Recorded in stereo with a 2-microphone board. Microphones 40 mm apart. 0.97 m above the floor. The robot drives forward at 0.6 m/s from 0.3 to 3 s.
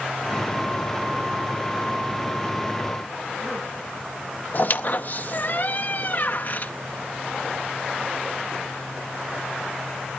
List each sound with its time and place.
4.5 s a squeak: 50° left (ahead or behind), 0.6 m